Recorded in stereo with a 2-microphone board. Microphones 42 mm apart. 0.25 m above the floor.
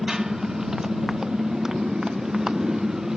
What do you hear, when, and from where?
0.0 s a motorcycle: 10° right (ahead or behind)